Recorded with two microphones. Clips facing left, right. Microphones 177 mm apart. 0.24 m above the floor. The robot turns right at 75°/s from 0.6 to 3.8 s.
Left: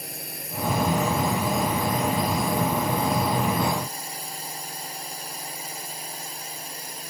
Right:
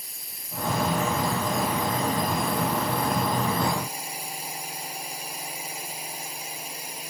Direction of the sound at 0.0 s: 110° left.